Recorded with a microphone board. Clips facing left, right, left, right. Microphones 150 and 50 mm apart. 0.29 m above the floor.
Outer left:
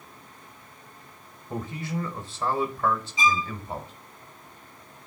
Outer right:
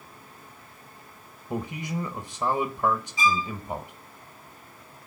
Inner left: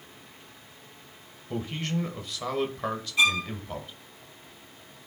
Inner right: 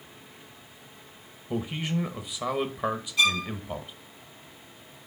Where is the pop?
No pop in this recording.